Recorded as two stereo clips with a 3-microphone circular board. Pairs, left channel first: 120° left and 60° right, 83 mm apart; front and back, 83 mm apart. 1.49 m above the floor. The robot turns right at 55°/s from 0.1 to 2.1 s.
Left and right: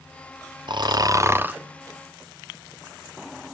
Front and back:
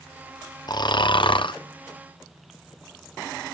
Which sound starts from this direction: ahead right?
Snoring, at 0.7 s.